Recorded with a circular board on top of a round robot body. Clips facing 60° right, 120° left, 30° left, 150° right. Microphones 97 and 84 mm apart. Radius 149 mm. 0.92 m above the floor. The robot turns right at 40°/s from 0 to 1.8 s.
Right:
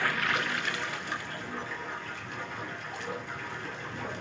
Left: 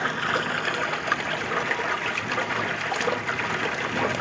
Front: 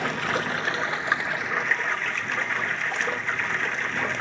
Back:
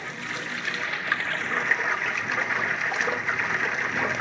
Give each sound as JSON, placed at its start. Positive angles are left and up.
{"t": 0.0, "sound": "running water", "azimuth_deg": 50, "distance_m": 0.7}